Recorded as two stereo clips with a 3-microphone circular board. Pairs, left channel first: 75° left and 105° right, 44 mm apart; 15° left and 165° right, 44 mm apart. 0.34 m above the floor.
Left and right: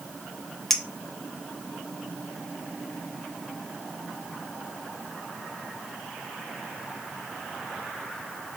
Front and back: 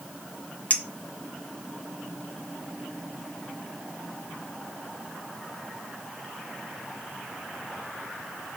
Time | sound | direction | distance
0.7 | a clink | 10° right | 0.6 m